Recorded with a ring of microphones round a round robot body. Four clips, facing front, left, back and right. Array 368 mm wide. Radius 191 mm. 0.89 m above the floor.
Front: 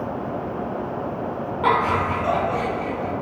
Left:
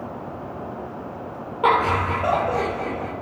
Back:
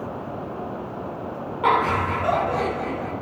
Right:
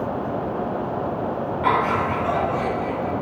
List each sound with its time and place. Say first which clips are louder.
1.6 s laughter: left 2 dB, even; 90° left, 3.5 m; by 3.1 s 105° left, 3 m